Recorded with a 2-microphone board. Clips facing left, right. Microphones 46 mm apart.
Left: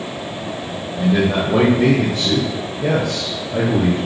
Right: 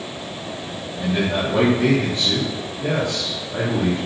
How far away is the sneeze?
I don't hear a sneeze.